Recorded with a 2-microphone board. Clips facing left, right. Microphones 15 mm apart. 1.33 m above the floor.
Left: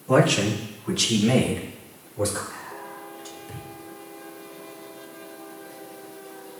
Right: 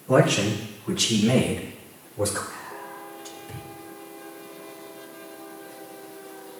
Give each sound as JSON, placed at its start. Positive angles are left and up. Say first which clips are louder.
{"t": 0.1, "sound": "a man speaking", "louder": "even", "side_deg": 65, "distance_m": 2.0}
{"t": 2.5, "sound": "whispering", "louder": "even", "side_deg": 5, "distance_m": 2.5}